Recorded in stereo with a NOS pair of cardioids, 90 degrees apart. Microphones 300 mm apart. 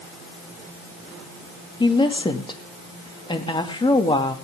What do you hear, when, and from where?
1.8 s a woman speaking: 15° left, 2.5 m